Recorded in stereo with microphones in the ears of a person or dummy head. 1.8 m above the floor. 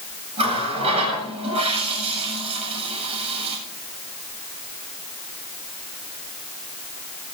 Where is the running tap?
35° right (ahead or behind), 8 m.